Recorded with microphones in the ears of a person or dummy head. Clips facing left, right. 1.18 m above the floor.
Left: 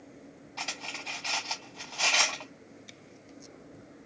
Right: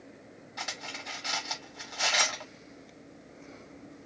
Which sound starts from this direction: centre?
Cutlery clinking, at 0.6 s.